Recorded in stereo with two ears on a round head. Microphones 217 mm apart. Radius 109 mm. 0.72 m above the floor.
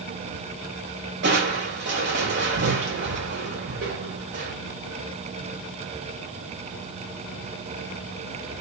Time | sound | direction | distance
1.2 | crushing | 45° right (ahead or behind) | 4 m